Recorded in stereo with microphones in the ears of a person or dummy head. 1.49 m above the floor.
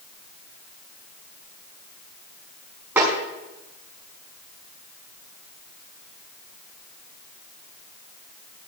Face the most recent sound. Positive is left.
turn(degrees=-15)  # may be behind; listen again after turning